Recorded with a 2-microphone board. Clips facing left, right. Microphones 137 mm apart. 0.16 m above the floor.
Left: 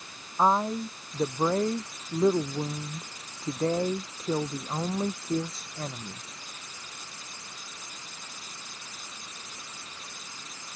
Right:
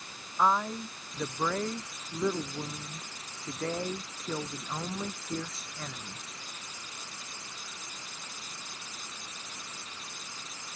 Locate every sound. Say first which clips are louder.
0.4 s a woman speaking: left 4 dB; 30° left (ahead or behind)